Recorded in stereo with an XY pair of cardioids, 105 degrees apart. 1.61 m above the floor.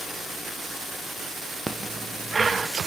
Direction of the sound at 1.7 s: 25° right.